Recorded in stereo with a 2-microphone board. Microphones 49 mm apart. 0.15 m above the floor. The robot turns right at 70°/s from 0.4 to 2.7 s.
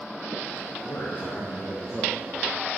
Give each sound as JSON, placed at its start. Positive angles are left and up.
{"t": 0.8, "sound": "a man speaking", "azimuth_deg": 95, "distance_m": 4.5}